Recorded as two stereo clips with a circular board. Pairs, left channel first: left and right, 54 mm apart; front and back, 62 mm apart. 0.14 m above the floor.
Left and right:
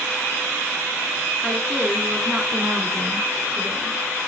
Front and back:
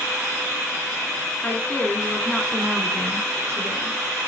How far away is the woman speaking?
About 1.2 m.